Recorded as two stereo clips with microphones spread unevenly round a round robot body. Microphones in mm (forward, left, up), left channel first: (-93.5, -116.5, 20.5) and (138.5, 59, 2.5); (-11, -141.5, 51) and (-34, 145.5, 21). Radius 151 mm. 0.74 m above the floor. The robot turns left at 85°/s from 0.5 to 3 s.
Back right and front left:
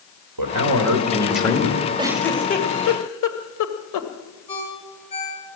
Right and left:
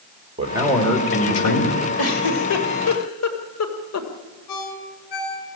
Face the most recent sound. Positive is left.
turn(degrees=-75)